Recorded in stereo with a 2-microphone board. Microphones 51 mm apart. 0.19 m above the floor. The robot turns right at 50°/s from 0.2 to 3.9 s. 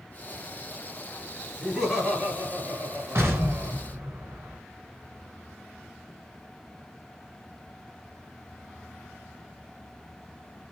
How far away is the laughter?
About 3 m.